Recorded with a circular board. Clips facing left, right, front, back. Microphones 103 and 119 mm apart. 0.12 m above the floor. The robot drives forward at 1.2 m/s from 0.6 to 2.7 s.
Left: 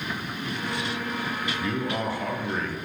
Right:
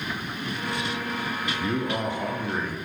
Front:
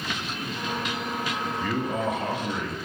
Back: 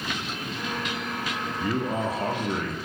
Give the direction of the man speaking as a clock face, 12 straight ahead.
4 o'clock.